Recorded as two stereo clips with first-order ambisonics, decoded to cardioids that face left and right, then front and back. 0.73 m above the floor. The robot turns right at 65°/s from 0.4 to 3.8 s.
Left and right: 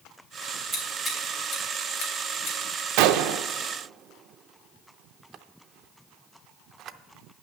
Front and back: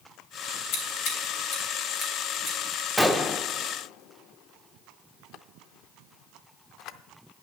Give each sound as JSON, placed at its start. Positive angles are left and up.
{"t": 0.7, "sound": "scissors", "azimuth_deg": -20, "distance_m": 3.0}
{"t": 3.0, "sound": "a gunshot", "azimuth_deg": -90, "distance_m": 0.5}